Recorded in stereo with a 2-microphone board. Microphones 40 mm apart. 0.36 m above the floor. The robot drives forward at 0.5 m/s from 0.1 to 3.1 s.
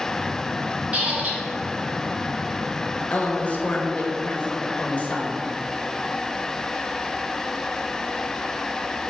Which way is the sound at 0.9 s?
35° right (ahead or behind).